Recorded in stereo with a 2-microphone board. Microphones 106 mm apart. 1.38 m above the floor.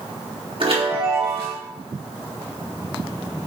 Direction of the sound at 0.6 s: 55° right (ahead or behind).